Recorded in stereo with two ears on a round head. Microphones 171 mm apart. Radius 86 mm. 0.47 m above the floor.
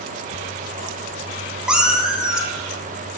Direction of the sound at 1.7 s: 5° right (ahead or behind).